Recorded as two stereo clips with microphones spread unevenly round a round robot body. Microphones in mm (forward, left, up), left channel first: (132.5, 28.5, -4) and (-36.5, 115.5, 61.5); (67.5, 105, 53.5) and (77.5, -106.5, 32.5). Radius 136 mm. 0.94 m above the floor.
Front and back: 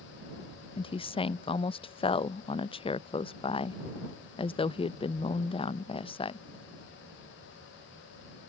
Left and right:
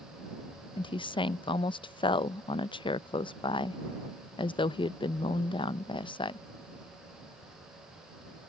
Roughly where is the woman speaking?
Ahead.